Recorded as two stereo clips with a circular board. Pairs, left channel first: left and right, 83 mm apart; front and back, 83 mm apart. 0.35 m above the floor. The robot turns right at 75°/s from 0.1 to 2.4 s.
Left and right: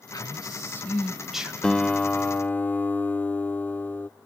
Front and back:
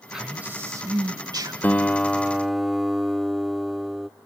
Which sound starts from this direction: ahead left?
A guitar, at 1.6 s.